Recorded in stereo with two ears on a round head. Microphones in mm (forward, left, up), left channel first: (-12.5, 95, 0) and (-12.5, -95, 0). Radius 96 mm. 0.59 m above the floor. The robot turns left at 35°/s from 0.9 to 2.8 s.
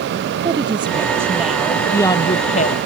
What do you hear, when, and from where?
0.5 s a woman speaking: 155° right; by 2.8 s 135° left